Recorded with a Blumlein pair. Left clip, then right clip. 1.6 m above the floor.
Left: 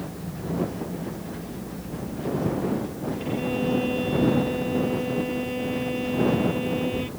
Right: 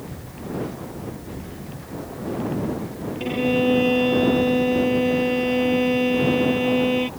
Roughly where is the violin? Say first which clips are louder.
Right 7 dB; ahead right.